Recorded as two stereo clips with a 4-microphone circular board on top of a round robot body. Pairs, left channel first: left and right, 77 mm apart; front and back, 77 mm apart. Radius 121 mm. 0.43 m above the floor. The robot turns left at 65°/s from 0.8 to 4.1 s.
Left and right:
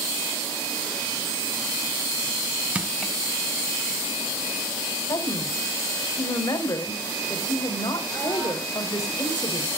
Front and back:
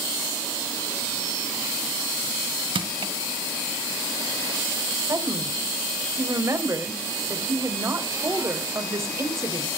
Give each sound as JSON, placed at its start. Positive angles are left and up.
{"t": 2.8, "sound": "crushing", "azimuth_deg": -165, "distance_m": 1.3}
{"t": 5.1, "sound": "a woman speaking", "azimuth_deg": 130, "distance_m": 2.5}